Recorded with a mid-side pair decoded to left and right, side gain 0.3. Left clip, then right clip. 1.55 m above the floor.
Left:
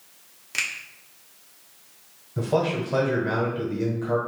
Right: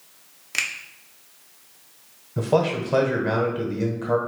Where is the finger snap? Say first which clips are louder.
Right 2 dB; 30° right, 0.8 m.